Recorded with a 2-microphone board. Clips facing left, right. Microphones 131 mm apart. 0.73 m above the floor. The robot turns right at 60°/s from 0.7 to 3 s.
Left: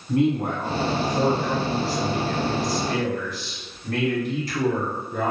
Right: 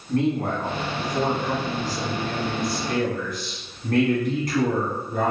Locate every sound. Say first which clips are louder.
0.1 s a man speaking: left 1 dB; 160° left, 1.4 m; by 5.3 s 65° right, 1.4 m